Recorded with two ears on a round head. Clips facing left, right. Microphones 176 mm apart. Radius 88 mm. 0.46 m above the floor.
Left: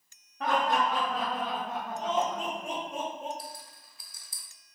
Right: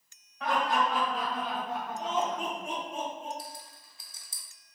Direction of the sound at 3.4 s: 25° right (ahead or behind).